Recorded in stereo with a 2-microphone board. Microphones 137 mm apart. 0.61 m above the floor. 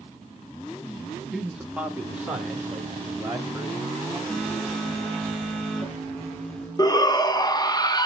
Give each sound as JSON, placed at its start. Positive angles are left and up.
{"t": 1.3, "sound": "a man speaking", "side_deg": -5, "distance_m": 0.7}
{"t": 4.3, "sound": "a phone buzzing", "side_deg": 5, "distance_m": 1.5}
{"t": 6.8, "sound": "a shout", "side_deg": 30, "distance_m": 0.6}